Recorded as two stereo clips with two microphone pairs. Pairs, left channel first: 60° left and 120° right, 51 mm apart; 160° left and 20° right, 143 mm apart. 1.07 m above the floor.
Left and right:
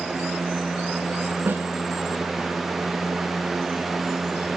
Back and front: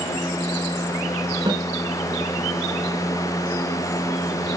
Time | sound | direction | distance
1.5 | a snare drum | 75° right | 3.5 m